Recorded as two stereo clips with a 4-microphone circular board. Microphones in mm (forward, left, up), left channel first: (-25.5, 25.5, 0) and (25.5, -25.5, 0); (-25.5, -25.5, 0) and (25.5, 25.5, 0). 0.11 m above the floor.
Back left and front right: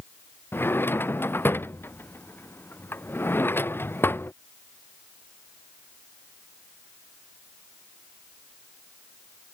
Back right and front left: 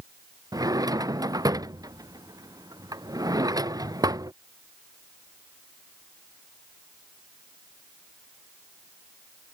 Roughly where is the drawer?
Left.